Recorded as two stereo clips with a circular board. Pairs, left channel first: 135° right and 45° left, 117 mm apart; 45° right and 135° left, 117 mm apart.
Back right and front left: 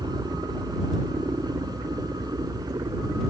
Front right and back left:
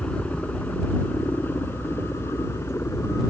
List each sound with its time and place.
0.0 s a helicopter: 25° left; by 3.3 s 10° left